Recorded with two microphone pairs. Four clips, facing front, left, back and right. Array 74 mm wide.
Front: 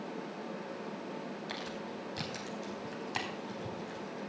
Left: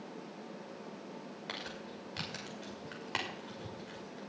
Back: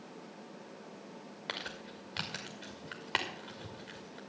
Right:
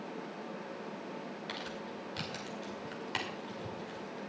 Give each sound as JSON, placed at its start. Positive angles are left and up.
{"t": 1.5, "sound": "crumpling", "azimuth_deg": 170, "distance_m": 5.0}